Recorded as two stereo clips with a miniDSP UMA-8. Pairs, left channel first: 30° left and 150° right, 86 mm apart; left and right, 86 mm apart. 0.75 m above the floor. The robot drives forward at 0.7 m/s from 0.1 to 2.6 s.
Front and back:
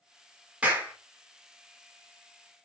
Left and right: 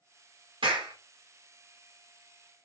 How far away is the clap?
About 1.3 m.